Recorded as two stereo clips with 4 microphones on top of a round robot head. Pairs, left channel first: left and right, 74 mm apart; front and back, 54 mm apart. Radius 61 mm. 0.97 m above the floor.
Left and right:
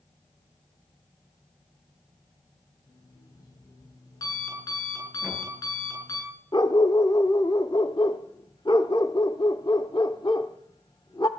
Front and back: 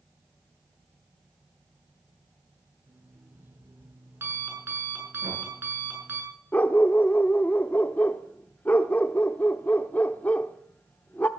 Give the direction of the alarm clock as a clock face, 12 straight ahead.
8 o'clock.